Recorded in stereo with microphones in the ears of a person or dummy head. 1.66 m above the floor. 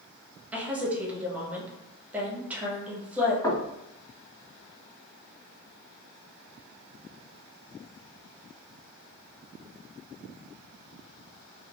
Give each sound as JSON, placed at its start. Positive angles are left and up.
{"t": 0.5, "sound": "a woman speaking", "side_deg": -10, "distance_m": 1.0}
{"t": 3.4, "sound": "knocking", "side_deg": 20, "distance_m": 1.7}